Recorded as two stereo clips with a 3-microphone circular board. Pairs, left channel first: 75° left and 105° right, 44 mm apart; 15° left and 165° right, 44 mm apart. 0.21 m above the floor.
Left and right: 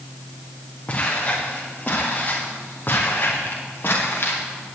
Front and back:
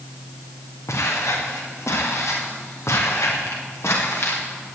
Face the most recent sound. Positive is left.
turn(degrees=35)